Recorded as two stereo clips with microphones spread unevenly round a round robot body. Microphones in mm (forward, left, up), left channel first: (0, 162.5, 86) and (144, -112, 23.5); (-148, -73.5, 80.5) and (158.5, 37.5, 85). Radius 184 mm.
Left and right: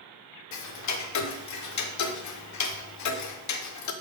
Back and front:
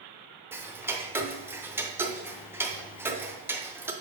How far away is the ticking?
About 0.7 m.